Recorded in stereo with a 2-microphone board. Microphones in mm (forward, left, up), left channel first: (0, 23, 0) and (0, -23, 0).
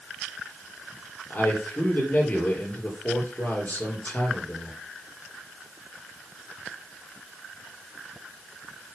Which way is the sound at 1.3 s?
35° left (ahead or behind).